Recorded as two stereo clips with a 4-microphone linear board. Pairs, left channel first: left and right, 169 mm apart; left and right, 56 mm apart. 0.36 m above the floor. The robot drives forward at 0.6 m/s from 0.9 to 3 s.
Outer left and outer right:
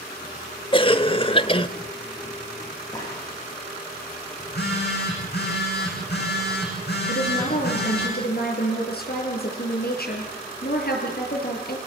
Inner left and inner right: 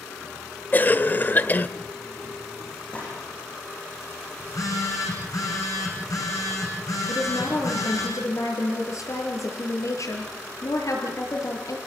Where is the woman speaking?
65° left (ahead or behind), 6.5 m.